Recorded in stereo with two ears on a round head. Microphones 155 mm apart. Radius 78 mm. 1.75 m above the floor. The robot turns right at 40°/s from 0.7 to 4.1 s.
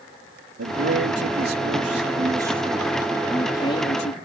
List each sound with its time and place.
0.6 s a man speaking: 90° right; by 4.2 s 45° left